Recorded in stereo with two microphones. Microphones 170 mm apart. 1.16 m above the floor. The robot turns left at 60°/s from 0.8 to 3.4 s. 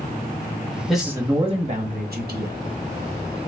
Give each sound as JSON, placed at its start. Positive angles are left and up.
{"t": 0.9, "sound": "a man speaking", "azimuth_deg": 0, "distance_m": 1.3}